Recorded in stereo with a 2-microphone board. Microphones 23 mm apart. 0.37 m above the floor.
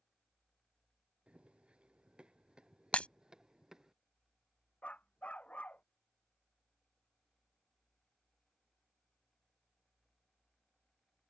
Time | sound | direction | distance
1.3 | running footsteps | 50° right (ahead or behind) | ?
2.9 | breaking glass | 65° left (ahead or behind) | ?
4.8 | a dog barking | 90° left | ?